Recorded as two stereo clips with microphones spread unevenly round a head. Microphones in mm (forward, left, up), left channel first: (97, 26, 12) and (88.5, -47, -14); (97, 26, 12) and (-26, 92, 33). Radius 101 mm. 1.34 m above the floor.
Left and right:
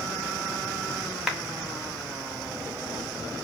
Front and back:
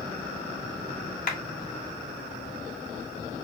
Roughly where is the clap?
Ahead.